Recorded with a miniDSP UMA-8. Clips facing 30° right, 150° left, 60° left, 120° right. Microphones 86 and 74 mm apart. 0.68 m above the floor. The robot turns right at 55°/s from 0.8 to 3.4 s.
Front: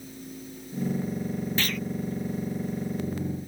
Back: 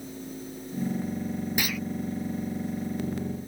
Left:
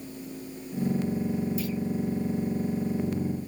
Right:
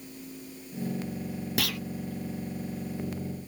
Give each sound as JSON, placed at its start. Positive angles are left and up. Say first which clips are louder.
{"t": 1.6, "sound": "a clunk", "louder": "even, left 1 dB", "azimuth_deg": -135}